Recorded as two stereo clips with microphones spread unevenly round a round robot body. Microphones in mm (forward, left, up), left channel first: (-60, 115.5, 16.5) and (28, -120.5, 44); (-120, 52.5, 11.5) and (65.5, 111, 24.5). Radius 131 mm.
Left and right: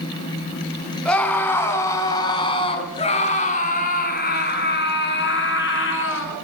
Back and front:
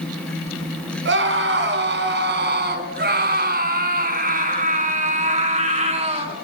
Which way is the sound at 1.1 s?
25° left.